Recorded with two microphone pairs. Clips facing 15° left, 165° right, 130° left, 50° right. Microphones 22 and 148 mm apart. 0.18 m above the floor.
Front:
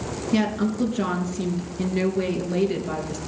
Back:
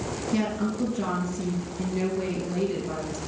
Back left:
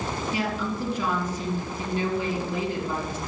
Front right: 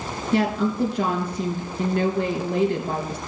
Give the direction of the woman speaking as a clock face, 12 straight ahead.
1 o'clock.